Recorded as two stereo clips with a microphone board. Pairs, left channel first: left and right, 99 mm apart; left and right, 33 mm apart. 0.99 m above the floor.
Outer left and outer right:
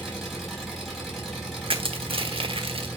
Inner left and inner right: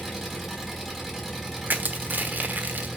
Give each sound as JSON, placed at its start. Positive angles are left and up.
{"t": 0.0, "sound": "an engine running", "side_deg": 0, "distance_m": 4.5}
{"t": 1.7, "sound": "crushing", "side_deg": -60, "distance_m": 1.1}